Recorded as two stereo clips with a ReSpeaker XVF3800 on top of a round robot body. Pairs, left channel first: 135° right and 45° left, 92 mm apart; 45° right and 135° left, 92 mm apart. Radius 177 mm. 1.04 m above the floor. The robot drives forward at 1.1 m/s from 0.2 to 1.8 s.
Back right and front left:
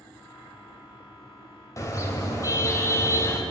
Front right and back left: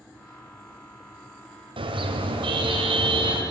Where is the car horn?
165° left, 3 m.